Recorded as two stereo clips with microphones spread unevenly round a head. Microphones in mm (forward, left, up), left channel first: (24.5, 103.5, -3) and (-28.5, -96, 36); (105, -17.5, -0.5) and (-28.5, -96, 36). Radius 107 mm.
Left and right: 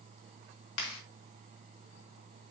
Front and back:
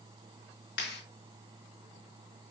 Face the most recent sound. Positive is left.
turn(degrees=65)